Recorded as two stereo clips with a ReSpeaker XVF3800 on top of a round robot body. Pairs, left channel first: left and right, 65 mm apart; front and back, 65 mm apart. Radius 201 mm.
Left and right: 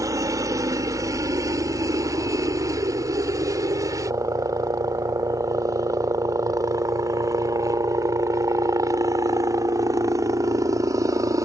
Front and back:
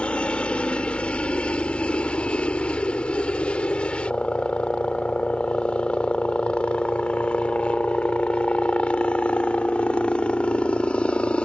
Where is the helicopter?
70° right.